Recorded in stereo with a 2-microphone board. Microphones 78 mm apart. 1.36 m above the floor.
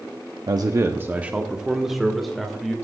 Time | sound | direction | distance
0.5 | a man speaking | 60° right (ahead or behind) | 0.6 m